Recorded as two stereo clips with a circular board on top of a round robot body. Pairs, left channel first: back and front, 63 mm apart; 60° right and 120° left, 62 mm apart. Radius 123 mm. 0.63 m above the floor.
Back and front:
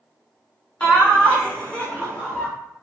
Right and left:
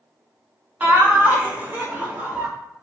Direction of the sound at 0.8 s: 130° left.